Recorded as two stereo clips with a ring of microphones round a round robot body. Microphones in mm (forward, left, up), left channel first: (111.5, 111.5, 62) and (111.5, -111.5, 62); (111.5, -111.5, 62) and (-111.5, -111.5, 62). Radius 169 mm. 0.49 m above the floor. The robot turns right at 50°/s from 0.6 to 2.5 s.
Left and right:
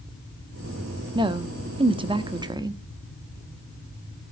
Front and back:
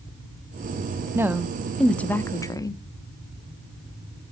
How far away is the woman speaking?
About 0.8 m.